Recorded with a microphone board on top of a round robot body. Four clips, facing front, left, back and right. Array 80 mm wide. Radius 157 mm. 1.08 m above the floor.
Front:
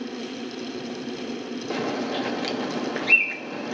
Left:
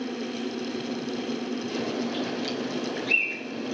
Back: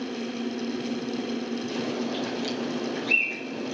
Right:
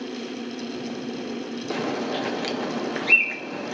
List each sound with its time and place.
1.7 s a bird: 55° right, 1.2 m